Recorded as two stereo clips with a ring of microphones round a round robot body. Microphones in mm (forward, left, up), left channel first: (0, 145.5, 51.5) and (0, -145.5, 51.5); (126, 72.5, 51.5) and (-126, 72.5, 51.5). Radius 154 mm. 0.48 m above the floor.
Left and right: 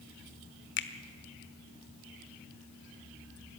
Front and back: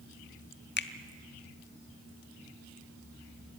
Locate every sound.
0.8 s a finger snap: 45° left, 1.2 m